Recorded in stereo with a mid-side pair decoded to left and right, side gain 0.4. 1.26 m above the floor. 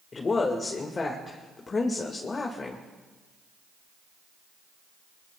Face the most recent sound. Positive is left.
turn(degrees=40)